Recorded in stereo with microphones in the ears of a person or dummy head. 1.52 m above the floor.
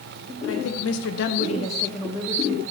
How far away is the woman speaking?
About 1.1 m.